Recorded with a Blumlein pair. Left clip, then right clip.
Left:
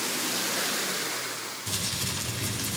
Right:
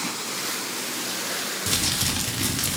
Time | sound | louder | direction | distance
1.7 | crumpling | right 6 dB | 35° right | 1.8 m